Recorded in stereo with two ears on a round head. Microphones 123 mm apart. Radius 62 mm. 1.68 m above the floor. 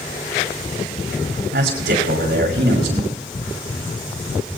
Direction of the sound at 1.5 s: 85° right.